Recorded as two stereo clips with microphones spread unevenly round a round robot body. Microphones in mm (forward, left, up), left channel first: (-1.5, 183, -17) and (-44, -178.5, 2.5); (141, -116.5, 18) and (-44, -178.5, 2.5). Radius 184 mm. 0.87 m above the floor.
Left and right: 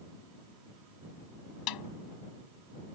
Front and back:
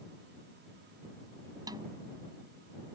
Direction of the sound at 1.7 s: 120° left.